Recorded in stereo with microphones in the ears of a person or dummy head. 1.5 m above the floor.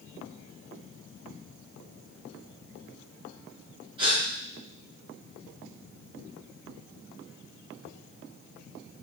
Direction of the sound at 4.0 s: 30° right (ahead or behind).